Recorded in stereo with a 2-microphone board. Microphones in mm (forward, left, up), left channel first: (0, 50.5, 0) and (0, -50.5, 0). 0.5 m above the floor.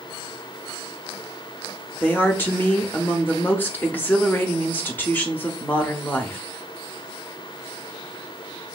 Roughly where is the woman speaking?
Centre.